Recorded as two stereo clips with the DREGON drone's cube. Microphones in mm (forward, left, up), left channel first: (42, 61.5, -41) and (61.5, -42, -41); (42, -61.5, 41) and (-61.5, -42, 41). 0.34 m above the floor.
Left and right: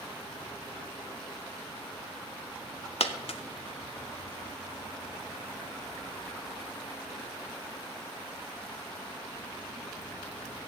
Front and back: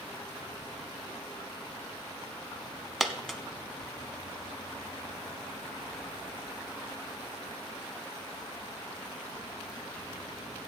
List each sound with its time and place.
3.0 s a dropped coin: 80° left, 0.7 m